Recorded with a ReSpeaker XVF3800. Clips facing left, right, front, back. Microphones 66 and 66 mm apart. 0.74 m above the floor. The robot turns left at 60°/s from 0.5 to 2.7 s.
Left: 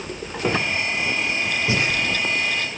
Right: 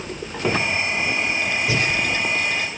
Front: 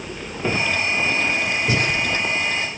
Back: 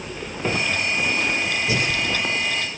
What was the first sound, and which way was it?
Breathing, 35° left.